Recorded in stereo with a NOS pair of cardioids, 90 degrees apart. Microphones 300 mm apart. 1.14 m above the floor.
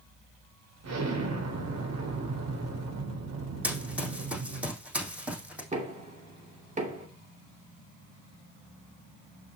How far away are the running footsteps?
About 3.5 m.